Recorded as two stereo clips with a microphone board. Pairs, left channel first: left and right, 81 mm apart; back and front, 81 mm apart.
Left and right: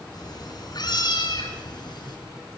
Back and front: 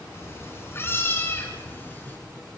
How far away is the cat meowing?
About 3.5 m.